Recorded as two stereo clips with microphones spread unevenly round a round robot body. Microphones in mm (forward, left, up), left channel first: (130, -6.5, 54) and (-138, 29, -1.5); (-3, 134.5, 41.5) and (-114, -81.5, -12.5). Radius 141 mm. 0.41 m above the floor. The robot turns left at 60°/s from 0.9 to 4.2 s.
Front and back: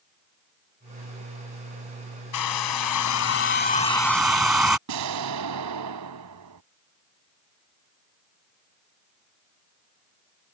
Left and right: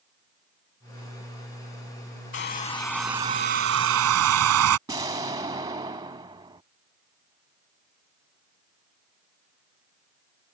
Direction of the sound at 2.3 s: 10° left.